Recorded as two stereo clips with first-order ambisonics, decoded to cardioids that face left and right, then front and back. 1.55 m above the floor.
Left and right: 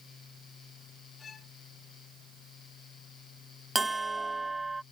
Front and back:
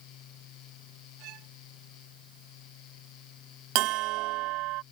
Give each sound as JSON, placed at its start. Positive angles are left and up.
{"t": 1.2, "sound": "a violin", "azimuth_deg": 155}
{"t": 3.8, "sound": "a bell", "azimuth_deg": -170}